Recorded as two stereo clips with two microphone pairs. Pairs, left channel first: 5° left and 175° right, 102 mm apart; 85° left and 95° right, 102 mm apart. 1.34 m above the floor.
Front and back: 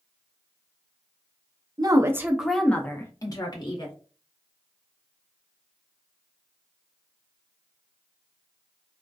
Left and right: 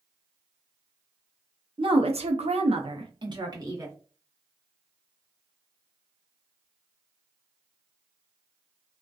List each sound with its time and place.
1.8 s a woman speaking: 130° right, 0.6 m; by 4.0 s 40° right, 1.1 m